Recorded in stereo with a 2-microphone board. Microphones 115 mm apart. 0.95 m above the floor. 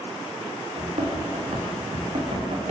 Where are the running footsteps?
75° right (ahead or behind), 6 m; by 2.7 s 65° right (ahead or behind), 5.5 m.